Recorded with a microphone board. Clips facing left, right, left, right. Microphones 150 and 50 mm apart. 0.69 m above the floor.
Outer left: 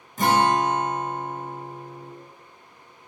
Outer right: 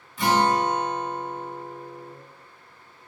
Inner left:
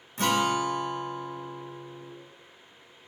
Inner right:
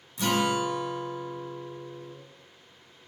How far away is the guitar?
About 0.5 m.